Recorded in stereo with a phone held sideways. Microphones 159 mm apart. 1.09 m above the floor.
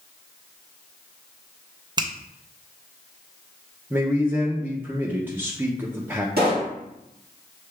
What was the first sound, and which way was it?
A finger snap, 30° right (ahead or behind).